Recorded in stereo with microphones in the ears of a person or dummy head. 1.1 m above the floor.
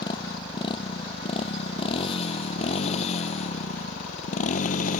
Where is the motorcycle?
30° left (ahead or behind); by 5.0 s 50° left (ahead or behind).